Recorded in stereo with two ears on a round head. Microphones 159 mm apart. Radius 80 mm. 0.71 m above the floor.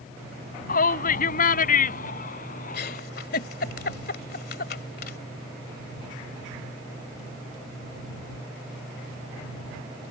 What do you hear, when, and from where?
0.7 s a shout: 50° left (ahead or behind)
2.7 s a giggle: 55° left (ahead or behind)